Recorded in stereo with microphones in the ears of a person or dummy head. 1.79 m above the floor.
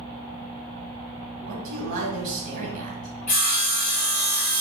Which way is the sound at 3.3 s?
40° left (ahead or behind).